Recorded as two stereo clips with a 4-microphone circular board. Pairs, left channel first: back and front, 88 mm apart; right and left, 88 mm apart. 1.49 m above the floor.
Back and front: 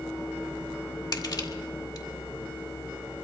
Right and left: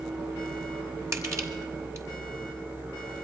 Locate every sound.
1.1 s crushing: 140° left, 2.5 m